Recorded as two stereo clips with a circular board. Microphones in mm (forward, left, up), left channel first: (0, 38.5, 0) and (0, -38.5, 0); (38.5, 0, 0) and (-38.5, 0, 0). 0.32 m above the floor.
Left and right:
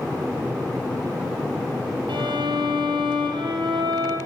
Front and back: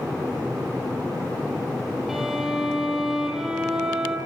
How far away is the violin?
About 6.5 m.